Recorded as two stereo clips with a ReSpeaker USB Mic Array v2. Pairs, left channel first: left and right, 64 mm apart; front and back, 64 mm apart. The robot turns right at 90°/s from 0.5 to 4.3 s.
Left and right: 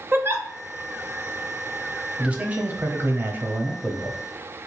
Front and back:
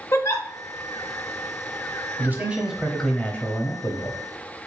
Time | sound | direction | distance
0.1 | a giggle | 40° right | 0.7 m
2.2 | a man speaking | 155° right | 0.9 m